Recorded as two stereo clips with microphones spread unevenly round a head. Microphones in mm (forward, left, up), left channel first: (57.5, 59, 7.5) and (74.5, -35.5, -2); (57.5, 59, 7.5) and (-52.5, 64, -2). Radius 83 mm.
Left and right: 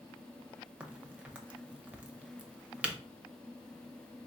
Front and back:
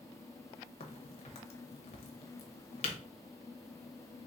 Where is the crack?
10° right, 0.8 m.